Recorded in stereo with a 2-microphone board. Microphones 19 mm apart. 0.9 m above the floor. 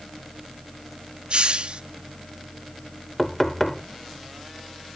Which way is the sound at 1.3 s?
65° right (ahead or behind).